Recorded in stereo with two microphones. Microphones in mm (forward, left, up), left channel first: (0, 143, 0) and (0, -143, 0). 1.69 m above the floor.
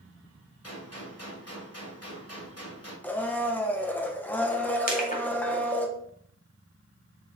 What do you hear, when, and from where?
0.6 s a gunshot: 55° left (ahead or behind), 2.5 m
3.0 s a blender: 5° left (ahead or behind), 0.8 m
4.9 s crushing: 30° left (ahead or behind), 1.8 m